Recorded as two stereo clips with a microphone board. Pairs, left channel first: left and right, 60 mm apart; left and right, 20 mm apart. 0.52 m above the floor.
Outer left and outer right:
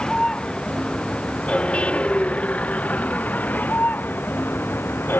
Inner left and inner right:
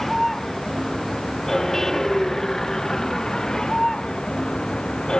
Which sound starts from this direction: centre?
A vehicle, at 0.0 s.